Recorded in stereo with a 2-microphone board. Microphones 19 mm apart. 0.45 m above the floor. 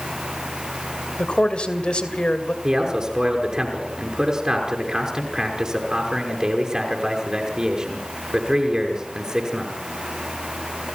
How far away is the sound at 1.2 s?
About 2.5 m.